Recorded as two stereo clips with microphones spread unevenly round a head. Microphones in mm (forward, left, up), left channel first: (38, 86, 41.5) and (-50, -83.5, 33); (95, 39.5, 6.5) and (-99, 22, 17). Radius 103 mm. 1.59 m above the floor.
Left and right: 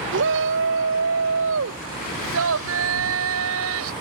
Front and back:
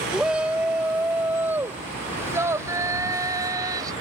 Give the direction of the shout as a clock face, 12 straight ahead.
3 o'clock.